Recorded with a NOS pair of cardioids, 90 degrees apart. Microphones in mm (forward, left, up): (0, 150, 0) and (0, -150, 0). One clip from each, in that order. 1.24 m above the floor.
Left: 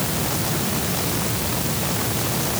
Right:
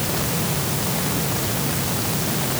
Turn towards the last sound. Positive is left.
No sound to turn to.